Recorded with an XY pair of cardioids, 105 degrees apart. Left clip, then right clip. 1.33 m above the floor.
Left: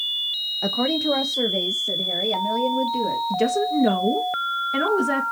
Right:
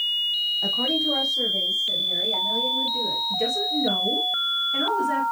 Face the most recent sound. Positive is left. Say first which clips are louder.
# left 2 dB
turn(degrees=60)